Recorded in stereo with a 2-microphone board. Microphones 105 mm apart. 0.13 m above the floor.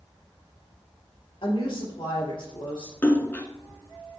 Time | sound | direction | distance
1.4 | a woman speaking | 60° left (ahead or behind) | 3 m
3.0 | a splash | 20° left (ahead or behind) | 0.9 m